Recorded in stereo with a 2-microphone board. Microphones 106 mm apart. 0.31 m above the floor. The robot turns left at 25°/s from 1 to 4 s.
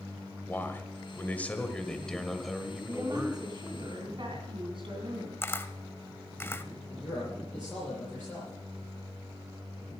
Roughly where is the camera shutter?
Left.